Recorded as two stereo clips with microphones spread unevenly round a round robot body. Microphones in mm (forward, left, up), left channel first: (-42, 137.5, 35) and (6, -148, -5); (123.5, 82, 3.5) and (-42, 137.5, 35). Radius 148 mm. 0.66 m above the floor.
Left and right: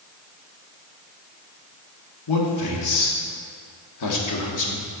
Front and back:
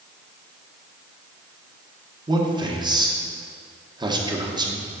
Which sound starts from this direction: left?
A man speaking, at 2.3 s.